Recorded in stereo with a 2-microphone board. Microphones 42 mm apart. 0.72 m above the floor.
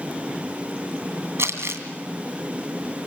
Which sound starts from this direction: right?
Crumpling, at 1.4 s.